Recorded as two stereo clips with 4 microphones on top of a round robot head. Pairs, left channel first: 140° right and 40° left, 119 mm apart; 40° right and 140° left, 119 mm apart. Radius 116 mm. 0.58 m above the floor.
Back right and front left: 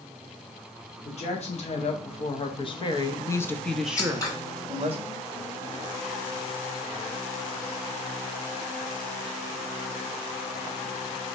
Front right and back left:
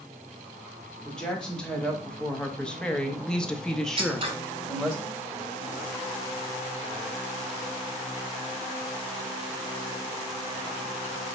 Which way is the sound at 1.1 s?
125° right.